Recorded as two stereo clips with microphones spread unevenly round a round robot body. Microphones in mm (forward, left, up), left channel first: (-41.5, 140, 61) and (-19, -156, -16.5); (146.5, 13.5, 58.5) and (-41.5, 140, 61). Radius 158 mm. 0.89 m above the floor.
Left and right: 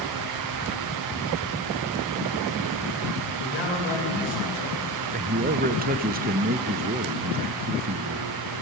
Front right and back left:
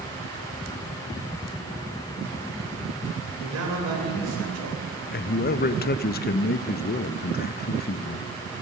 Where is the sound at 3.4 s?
145° left, 3.5 m.